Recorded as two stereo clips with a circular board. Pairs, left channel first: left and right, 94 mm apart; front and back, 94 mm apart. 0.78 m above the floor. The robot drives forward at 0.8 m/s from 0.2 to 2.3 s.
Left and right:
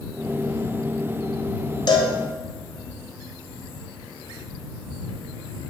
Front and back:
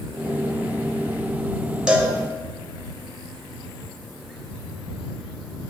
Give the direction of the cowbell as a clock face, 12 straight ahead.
9 o'clock.